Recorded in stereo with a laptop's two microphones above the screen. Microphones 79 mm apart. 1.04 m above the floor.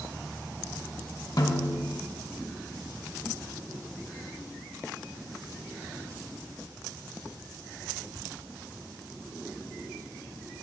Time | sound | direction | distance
1.4 | a snare drum | 55° left (ahead or behind) | 1.3 m